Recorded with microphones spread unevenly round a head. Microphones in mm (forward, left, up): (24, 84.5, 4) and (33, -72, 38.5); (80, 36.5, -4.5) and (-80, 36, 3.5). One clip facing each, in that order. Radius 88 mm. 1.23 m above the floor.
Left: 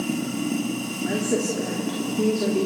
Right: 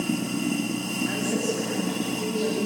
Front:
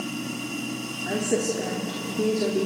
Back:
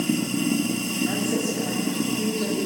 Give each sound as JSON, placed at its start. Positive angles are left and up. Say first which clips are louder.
{"t": 0.0, "sound": "running water", "louder": "even, back 8 dB", "azimuth_deg": -170, "distance_m": 2.5}
{"t": 1.1, "sound": "a woman speaking", "louder": "left 4 dB, front 3 dB", "azimuth_deg": 55, "distance_m": 3.5}